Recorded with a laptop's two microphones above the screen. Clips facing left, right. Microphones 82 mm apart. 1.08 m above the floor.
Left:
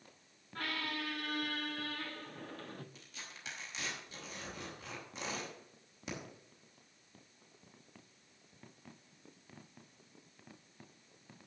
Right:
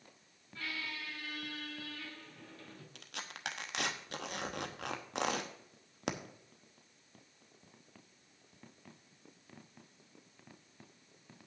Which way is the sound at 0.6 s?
55° left (ahead or behind).